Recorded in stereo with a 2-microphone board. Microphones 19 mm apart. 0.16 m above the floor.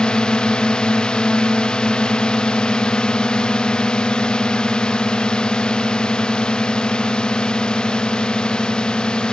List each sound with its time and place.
0.0 s a drone: 60° left (ahead or behind)